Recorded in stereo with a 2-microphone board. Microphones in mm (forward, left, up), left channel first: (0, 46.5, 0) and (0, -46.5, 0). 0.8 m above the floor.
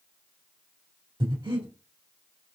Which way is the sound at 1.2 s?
60° right (ahead or behind).